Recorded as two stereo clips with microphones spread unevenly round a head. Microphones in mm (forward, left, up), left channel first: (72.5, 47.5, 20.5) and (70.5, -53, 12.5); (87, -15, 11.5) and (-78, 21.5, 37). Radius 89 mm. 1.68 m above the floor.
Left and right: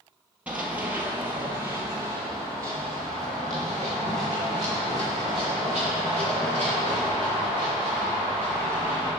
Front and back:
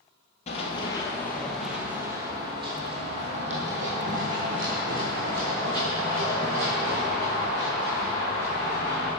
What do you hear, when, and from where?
0.5 s running footsteps: 25° right, 1.8 m; by 9.1 s 165° right, 8 m